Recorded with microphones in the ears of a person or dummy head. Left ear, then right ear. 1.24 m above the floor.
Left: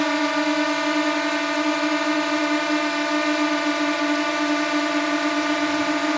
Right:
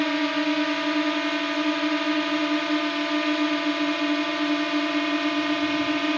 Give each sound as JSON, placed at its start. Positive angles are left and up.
{"t": 0.0, "sound": "a drone", "side_deg": 40}